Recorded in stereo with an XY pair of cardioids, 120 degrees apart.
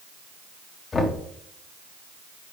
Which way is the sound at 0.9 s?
30° left.